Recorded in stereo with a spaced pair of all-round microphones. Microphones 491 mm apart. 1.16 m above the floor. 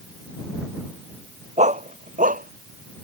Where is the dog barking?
15° right (ahead or behind); by 3.0 s 20° right (ahead or behind).